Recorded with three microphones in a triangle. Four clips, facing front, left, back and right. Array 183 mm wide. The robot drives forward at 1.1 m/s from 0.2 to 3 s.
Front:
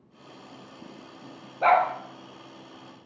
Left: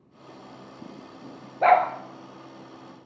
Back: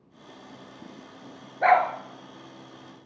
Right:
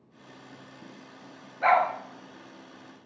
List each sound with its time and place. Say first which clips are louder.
1.6 s a dog barking: left 4 dB, back 1 dB; 100° left, 1.3 m; by 1.9 s 110° left, 1.3 m